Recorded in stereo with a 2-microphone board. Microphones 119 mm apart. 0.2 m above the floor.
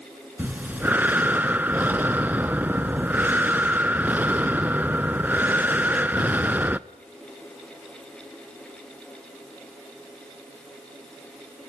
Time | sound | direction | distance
0.4 | breathing | 15° right (ahead or behind) | 0.6 m